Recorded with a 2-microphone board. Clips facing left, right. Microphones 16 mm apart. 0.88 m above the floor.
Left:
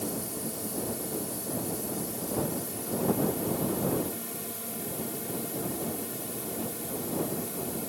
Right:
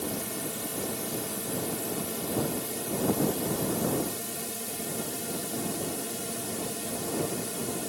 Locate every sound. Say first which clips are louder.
0.0 s a drone: right 1 dB; 30° right (ahead or behind)